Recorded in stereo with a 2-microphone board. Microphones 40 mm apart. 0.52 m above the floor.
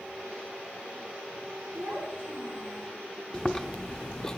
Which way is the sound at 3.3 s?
10° left (ahead or behind).